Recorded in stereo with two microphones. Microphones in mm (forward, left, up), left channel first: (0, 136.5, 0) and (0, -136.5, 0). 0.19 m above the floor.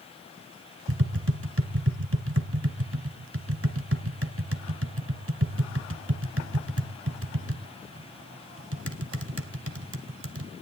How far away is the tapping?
About 1.4 m.